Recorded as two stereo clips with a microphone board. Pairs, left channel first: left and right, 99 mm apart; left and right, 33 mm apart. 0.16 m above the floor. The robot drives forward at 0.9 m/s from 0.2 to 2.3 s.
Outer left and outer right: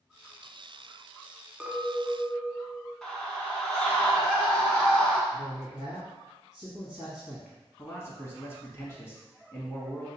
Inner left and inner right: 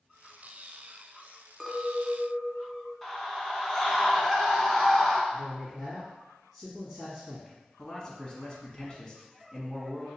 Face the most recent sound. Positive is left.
turn(degrees=25)  # may be behind; listen again after turning